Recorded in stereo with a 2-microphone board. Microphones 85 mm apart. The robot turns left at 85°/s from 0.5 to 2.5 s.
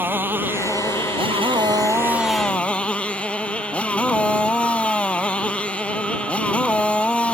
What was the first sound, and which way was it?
A motorcycle, 25° right.